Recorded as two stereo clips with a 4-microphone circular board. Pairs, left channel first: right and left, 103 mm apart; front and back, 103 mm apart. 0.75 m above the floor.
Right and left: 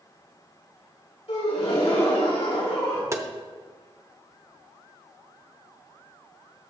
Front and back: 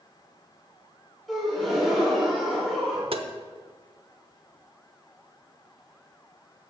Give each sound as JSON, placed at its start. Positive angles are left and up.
{"t": 1.3, "sound": "a gasp", "azimuth_deg": -90, "distance_m": 3.0}
{"t": 3.1, "sound": "tapping", "azimuth_deg": 150, "distance_m": 0.8}